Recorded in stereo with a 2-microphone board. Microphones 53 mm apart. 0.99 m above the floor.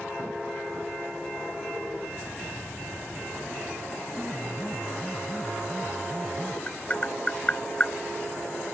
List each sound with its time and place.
4.2 s a piano: 20° right (ahead or behind)
6.7 s tapping: 25° left (ahead or behind)